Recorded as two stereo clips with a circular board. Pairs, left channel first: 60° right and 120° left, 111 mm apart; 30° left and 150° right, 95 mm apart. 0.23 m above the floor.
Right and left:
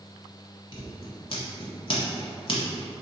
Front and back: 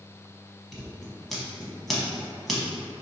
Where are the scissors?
60° right, 1.1 m.